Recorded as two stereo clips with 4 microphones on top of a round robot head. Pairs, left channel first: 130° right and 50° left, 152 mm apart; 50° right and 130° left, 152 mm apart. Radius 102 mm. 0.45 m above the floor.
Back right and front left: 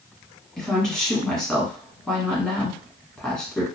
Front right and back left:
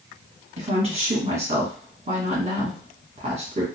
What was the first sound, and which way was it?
A woman speaking, 145° left.